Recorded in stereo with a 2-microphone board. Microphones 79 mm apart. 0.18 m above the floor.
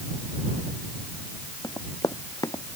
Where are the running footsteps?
50° left (ahead or behind).